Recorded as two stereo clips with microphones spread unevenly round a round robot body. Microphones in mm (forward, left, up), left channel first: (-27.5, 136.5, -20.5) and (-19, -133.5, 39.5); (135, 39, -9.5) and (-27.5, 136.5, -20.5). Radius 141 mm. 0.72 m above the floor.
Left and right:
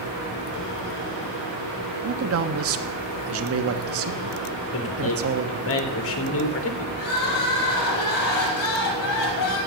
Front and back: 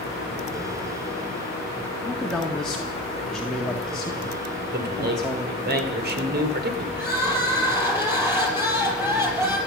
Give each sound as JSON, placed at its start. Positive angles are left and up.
{"t": 2.0, "sound": "a man speaking", "azimuth_deg": -120, "distance_m": 1.5}
{"t": 4.7, "sound": "a man speaking", "azimuth_deg": 125, "distance_m": 2.5}
{"t": 7.0, "sound": "crying", "azimuth_deg": 70, "distance_m": 5.5}